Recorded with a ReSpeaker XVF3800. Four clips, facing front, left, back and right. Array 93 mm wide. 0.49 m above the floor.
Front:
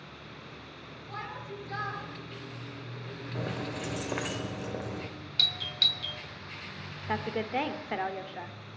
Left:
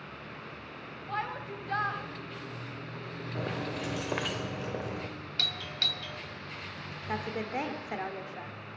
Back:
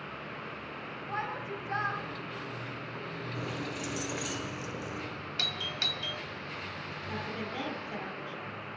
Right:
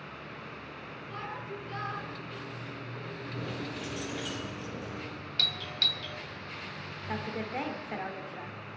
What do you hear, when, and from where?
1.1 s a shout: 115° left, 2.5 m
3.4 s keys jangling: 60° left, 1.1 m
5.4 s a doorbell: 165° left, 1.1 m
7.1 s a woman speaking: 15° left, 1.4 m